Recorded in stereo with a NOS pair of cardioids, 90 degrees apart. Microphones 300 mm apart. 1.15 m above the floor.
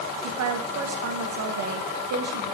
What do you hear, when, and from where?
0.2 s a woman speaking: 55° right, 1.0 m